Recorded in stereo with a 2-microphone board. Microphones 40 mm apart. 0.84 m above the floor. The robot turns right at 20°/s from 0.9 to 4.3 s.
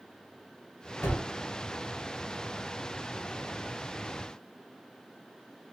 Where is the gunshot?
70° left (ahead or behind), 1.1 m; by 1.3 s 75° left (ahead or behind), 1.1 m.